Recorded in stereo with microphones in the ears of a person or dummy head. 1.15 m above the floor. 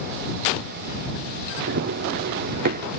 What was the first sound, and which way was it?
Running footsteps, 50° right (ahead or behind).